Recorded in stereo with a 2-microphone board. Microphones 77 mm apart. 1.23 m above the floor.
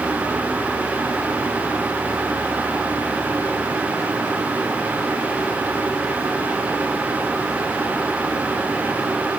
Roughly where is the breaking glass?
No breaking glass in this recording.